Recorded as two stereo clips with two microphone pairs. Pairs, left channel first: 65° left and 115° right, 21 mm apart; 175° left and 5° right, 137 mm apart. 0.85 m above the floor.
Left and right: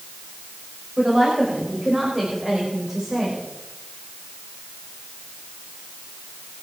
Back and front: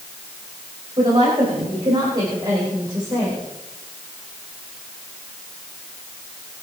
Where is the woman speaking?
55° right, 5 m; by 3.4 s 65° right, 4.5 m.